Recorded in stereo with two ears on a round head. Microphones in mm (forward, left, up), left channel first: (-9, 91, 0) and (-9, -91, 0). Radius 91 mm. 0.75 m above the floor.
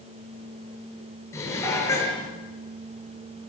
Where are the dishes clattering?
15° left (ahead or behind), 8.5 m.